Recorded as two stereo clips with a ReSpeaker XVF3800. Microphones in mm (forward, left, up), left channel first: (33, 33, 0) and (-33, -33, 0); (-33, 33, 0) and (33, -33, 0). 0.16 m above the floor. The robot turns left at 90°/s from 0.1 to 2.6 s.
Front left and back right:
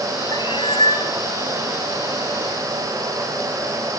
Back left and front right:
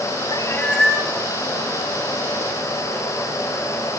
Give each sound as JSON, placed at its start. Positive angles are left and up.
{"t": 0.3, "sound": "a cat meowing", "azimuth_deg": 95, "distance_m": 2.5}